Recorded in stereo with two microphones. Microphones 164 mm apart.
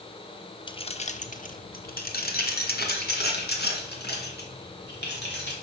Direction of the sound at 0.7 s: 30° left (ahead or behind).